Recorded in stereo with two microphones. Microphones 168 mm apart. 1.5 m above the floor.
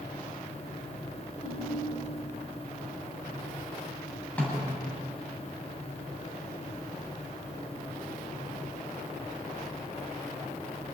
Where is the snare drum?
10° left (ahead or behind), 9 m.